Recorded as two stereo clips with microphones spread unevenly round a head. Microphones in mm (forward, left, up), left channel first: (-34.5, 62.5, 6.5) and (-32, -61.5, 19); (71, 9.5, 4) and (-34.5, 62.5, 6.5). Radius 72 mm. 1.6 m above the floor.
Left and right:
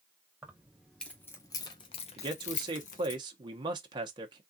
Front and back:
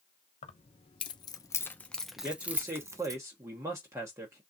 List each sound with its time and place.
0.4 s keys jangling: 15° right, 1.0 m; by 3.2 s 100° left, 1.1 m
2.2 s a man speaking: 135° right, 1.0 m